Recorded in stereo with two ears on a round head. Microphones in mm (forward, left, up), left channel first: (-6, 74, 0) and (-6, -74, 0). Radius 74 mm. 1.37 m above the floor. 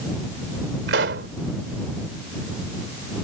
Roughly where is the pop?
Right.